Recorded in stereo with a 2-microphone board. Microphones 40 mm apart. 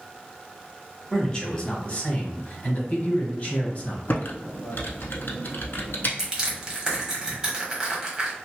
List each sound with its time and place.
1.1 s a man speaking: 15° left (ahead or behind), 1.4 m; by 4.0 s 40° left (ahead or behind), 1.6 m
4.1 s typing on a keyboard: 60° left (ahead or behind), 0.6 m
6.2 s crushing: 20° right (ahead or behind), 1.2 m